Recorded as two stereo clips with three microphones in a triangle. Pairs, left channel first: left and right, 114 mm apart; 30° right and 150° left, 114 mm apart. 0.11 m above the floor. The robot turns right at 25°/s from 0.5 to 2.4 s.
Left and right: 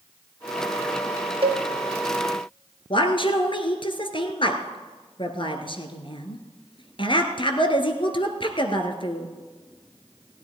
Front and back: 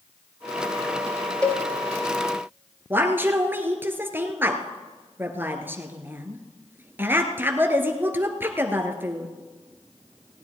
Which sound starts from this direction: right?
A cowbell, at 1.4 s.